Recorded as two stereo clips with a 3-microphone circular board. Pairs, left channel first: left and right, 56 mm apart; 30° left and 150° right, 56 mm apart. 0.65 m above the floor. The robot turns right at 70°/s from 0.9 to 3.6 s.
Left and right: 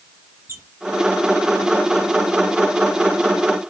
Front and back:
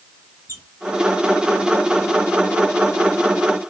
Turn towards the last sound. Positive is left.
turn(degrees=60)